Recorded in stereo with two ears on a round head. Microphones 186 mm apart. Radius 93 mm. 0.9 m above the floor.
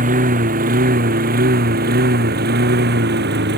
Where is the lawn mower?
40° right (ahead or behind); by 3.6 s 55° right (ahead or behind).